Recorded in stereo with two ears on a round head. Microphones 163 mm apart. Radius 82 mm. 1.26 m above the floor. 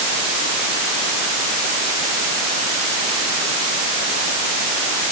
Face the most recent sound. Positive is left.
No sound to turn to.